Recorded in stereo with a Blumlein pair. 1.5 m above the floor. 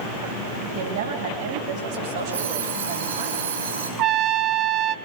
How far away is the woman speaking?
About 8.5 m.